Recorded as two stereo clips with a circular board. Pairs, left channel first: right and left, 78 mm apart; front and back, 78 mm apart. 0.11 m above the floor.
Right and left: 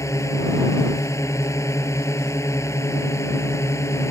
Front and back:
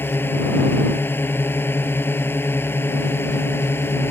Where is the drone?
55° right; by 4.1 s 50° right.